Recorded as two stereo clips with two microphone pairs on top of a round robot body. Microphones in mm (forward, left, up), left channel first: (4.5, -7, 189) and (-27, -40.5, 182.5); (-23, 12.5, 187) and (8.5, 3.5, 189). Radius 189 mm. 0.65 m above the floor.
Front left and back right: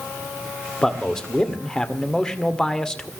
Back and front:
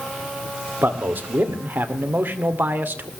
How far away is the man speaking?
About 2 m.